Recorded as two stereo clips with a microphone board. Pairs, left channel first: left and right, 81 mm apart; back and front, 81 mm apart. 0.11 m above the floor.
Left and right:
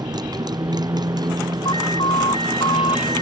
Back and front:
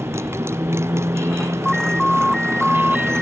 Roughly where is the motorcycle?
Ahead right.